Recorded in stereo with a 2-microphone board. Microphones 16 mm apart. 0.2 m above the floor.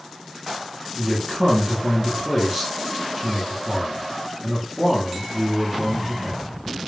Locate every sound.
0.9 s a man speaking: 15° right (ahead or behind), 2.5 m